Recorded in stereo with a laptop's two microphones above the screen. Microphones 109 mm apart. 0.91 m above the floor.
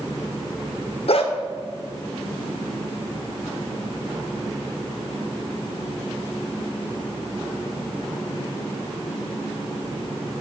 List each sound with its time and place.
1.1 s a dog barking: 60° left (ahead or behind), 0.9 m